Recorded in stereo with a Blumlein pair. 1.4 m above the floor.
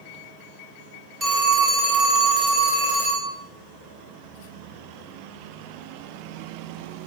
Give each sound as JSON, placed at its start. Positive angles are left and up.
{"t": 1.2, "sound": "a phone ringing", "azimuth_deg": -15, "distance_m": 3.0}